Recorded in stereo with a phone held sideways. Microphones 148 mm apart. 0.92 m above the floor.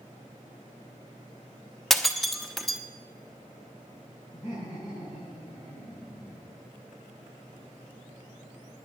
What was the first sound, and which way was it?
Breaking glass, centre (ahead or behind).